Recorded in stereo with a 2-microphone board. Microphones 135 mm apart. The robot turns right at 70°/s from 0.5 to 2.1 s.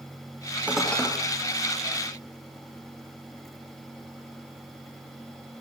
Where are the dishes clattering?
10° right (ahead or behind), 4.5 m; by 1.1 s 20° left (ahead or behind), 4.5 m.